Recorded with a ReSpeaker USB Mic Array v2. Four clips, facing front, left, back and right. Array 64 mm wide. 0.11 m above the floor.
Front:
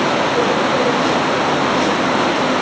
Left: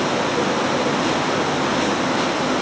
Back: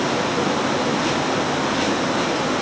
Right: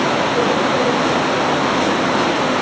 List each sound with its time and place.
Only background noise.